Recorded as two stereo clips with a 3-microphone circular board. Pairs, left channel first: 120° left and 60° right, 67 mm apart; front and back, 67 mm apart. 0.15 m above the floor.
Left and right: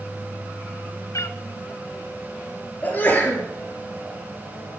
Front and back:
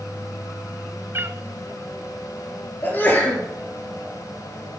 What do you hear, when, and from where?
1.1 s a cat meowing: 140° left, 0.5 m
2.8 s a sneeze: 60° left, 3.5 m